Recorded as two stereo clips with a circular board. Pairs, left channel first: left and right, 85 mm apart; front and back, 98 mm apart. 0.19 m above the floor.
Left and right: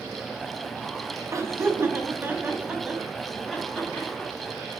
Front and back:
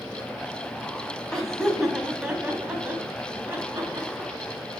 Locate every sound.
1.3 s laughter: 80° right, 1.9 m; by 4.5 s 145° left, 2 m